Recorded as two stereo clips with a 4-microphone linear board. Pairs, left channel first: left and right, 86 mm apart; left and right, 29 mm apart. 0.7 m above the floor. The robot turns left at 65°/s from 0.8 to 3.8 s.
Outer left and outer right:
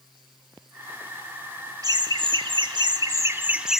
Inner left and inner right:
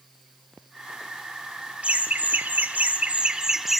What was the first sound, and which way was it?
Laughter, 50° right.